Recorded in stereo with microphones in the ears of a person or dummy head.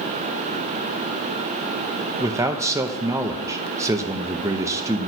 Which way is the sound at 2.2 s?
10° right (ahead or behind).